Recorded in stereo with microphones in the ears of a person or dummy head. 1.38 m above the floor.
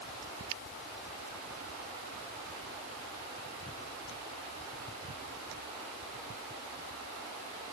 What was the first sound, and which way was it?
Only background noise.